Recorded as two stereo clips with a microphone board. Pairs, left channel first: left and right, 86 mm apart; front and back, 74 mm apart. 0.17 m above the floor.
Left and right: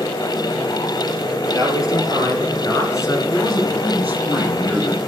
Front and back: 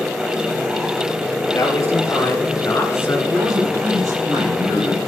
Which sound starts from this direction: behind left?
A man speaking, at 3.3 s.